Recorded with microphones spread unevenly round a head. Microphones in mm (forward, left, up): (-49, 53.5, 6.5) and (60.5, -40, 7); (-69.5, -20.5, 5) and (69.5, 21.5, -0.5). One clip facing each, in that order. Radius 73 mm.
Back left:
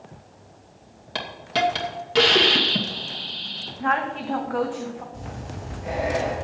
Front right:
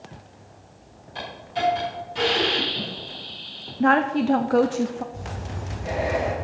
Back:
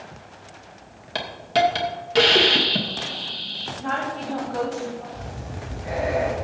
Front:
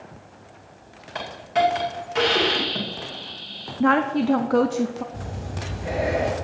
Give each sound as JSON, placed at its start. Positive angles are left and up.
{"t": 1.1, "sound": "a hiss", "azimuth_deg": 145, "distance_m": 2.5}
{"t": 3.8, "sound": "a woman speaking", "azimuth_deg": 0, "distance_m": 0.8}
{"t": 5.1, "sound": "breathing", "azimuth_deg": 45, "distance_m": 5.5}